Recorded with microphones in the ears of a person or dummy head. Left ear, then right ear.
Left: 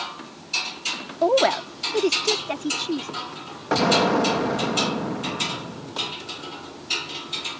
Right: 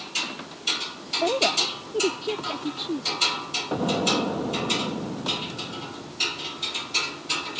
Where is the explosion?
65° left (ahead or behind).